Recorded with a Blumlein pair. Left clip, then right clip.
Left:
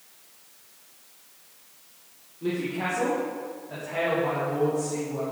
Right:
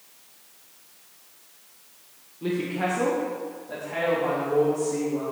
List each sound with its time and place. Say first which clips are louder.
2.4 s a woman speaking: right 2 dB; 10° right, 1.3 m; by 5.2 s 5° right, 3.5 m